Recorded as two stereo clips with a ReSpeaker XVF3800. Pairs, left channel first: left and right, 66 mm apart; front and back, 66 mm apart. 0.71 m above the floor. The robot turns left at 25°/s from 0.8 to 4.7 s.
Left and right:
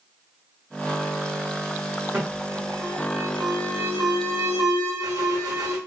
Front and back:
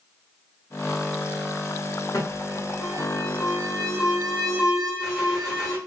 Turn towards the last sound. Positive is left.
turn(degrees=-100)